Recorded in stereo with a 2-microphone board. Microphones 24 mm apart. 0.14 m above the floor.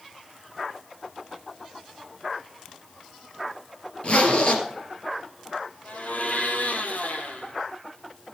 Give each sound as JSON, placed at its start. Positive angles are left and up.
{"t": 4.0, "sound": "a zipper", "side_deg": 45, "distance_m": 3.0}
{"t": 5.8, "sound": "a blender", "side_deg": 75, "distance_m": 2.0}